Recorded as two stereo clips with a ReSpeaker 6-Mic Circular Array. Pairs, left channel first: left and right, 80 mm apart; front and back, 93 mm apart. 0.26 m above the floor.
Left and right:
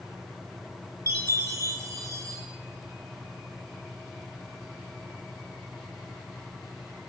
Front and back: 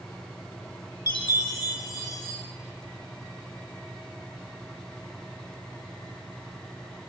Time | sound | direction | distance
1.1 | a chime | 45° right | 0.8 m